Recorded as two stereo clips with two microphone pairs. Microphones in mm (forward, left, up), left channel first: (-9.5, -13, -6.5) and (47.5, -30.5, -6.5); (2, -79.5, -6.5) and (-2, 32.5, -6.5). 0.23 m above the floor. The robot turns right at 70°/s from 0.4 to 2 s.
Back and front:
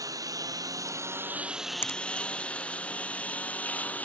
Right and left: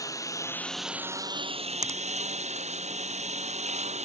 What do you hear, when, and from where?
0.0 s a lawn mower: 30° right; by 4.0 s 100° left
1.8 s a finger snap: 135° left; by 2.0 s 150° left